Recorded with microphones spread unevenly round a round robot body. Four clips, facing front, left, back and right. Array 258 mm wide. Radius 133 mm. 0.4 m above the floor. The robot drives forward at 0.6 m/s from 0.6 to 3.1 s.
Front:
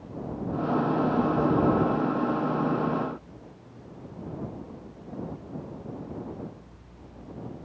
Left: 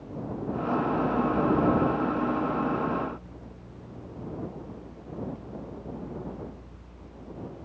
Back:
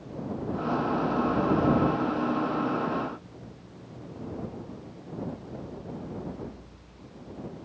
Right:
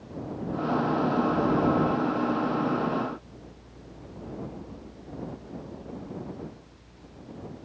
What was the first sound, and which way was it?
Only background noise.